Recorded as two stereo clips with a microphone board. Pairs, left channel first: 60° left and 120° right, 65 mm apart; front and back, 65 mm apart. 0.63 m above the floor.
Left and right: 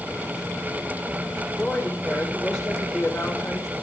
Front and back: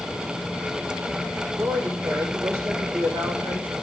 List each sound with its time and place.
1.6 s a woman speaking: 145° left, 2.5 m